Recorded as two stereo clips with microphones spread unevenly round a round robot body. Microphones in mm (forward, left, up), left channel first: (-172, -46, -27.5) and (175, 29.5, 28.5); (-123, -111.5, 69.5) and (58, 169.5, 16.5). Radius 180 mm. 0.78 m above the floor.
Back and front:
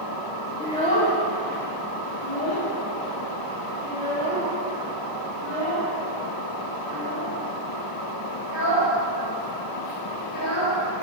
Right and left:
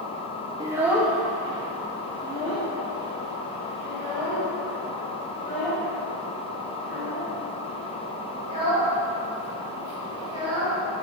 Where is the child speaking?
120° left, 0.6 m; by 10.8 s 160° left, 7 m.